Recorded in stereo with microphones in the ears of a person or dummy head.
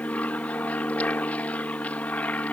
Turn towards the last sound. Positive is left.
turn(degrees=5)  # may be behind; listen again after turning